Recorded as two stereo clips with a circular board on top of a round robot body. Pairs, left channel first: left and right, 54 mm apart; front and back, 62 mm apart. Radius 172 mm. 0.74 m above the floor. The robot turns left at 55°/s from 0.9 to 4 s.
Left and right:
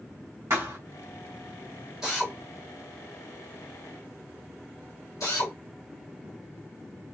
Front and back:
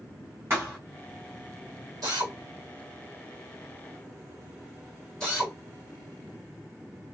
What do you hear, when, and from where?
0.5 s a thud: 125° right, 4 m
2.0 s a drill: 175° right, 2.5 m; by 5.5 s 80° left, 2.5 m